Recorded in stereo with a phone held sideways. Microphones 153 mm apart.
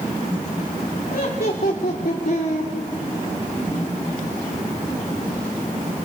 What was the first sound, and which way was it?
Laughter, 70° left (ahead or behind).